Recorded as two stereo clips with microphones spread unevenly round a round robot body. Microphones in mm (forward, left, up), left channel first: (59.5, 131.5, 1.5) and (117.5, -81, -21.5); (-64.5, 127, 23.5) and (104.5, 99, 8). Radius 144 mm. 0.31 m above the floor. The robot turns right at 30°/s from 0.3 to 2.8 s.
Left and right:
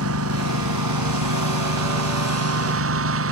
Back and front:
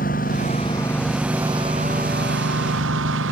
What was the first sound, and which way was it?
A lawn mower, 125° right.